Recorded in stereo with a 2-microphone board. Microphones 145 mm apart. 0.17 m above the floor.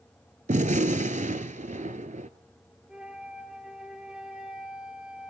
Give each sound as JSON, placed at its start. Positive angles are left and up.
{"t": 0.5, "sound": "a gunshot", "side_deg": -60, "distance_m": 0.7}
{"t": 2.9, "sound": "a flute", "side_deg": -5, "distance_m": 3.0}